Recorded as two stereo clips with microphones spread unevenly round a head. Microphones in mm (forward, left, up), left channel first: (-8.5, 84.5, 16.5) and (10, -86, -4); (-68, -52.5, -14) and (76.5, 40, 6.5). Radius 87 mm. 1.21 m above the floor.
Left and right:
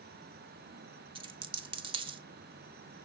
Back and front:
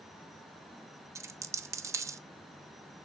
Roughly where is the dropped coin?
Ahead right.